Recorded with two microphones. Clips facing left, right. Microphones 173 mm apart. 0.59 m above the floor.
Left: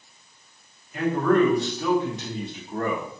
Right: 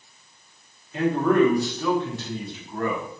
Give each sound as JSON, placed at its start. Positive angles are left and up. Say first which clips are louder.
{"t": 0.9, "sound": "a man speaking", "louder": "right 1 dB", "side_deg": -25, "distance_m": 0.8}